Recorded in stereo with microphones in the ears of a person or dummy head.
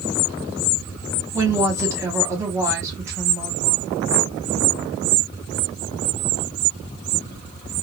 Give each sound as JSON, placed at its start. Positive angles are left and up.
{"t": 1.3, "sound": "a woman speaking", "side_deg": -15, "distance_m": 1.7}